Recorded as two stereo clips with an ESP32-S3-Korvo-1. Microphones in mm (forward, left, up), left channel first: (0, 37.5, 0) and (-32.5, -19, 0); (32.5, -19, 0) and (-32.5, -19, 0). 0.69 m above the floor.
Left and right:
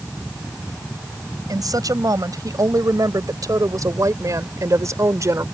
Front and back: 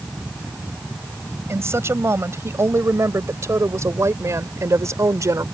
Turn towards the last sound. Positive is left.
turn(degrees=-150)